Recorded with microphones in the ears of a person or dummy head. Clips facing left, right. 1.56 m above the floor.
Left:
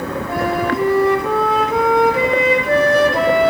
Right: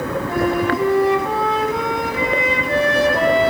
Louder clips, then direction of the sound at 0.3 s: Even; 55° left (ahead or behind).